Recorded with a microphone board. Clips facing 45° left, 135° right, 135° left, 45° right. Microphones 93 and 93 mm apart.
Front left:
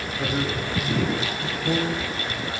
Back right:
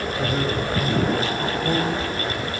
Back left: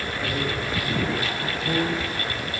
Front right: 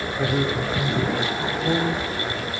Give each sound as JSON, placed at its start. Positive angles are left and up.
{"t": 0.2, "sound": "a man speaking", "azimuth_deg": -60, "distance_m": 9.5}